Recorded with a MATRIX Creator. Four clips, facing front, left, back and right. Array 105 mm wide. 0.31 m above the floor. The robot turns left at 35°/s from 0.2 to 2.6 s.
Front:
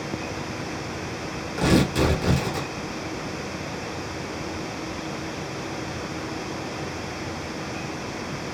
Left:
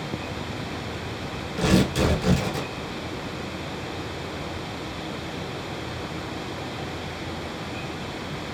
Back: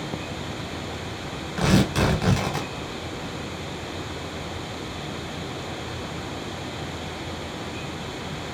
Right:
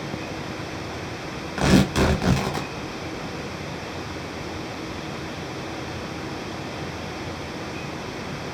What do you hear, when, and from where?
1.6 s tearing paper: 100° right, 1.1 m; by 2.7 s 140° right, 1.1 m